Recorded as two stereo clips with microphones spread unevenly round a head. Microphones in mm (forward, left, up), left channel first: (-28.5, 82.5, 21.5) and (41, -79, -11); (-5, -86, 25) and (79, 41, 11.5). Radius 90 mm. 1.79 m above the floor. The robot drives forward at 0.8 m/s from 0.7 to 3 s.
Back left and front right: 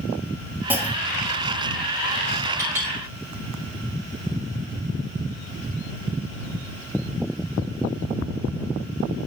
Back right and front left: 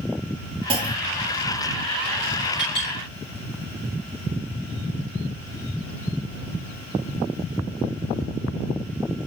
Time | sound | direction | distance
0.7 | a clunk | 20° left | 1.5 m
2.6 | a clink | 145° right | 4 m